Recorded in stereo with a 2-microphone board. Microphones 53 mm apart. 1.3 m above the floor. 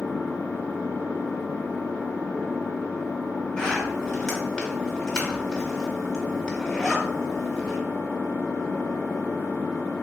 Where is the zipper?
10° left (ahead or behind), 1.3 m.